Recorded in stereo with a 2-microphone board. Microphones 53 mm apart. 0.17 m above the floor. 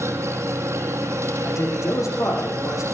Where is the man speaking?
80° left, 9 m.